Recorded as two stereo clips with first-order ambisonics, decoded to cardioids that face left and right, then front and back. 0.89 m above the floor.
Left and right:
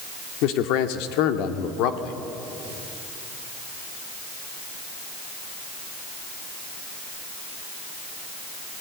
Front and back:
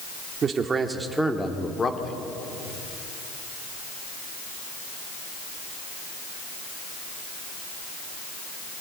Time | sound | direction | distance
0.4 | a man speaking | 120° left | 1.9 m